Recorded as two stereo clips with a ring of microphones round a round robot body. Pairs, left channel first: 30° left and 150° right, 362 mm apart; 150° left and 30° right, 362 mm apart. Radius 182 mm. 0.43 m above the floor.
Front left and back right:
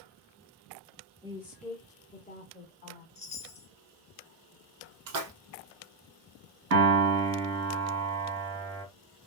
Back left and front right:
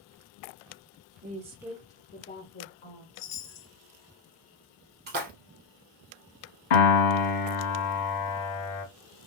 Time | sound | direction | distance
1.2 | a woman speaking | 75° right | 0.9 m
3.1 | a chime | 100° left | 0.9 m
5.1 | a splash | 95° right | 1.1 m
6.7 | a piano | 155° left | 1.2 m